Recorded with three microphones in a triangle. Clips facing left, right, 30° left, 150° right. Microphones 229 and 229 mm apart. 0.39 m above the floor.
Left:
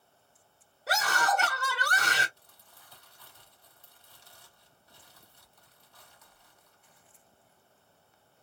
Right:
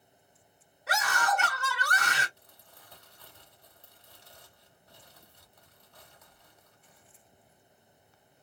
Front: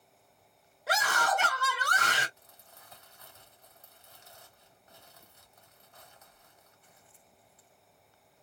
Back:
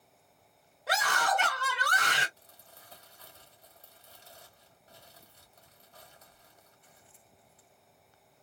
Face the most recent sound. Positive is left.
turn(degrees=-100)